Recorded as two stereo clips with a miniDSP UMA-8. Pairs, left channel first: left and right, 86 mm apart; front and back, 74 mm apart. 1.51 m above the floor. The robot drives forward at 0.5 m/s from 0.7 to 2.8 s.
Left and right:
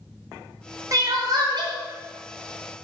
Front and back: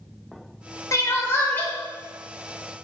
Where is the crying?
45° right, 0.9 m; by 1.7 s 70° right, 0.7 m.